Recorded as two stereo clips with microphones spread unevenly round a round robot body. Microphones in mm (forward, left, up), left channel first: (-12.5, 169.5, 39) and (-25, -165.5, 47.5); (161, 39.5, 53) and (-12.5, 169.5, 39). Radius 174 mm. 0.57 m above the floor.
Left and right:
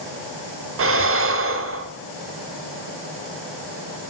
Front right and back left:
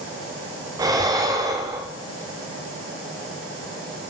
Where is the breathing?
145° right, 1.5 m.